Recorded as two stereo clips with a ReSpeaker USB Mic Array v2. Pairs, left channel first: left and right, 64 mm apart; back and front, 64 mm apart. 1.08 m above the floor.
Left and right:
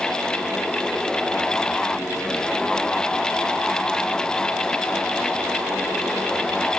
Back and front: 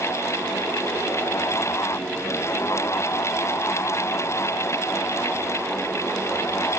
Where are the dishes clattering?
I don't hear dishes clattering.